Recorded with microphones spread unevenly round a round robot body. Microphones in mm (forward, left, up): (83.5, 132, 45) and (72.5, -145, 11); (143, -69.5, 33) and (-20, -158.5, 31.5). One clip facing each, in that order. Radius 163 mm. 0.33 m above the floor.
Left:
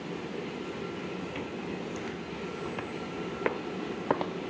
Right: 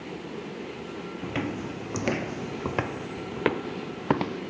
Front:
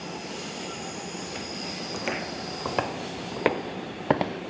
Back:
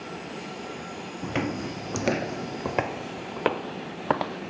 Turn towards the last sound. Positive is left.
turn(degrees=-40)